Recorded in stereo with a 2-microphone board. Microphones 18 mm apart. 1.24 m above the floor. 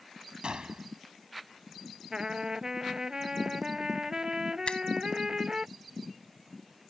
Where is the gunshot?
60° right (ahead or behind).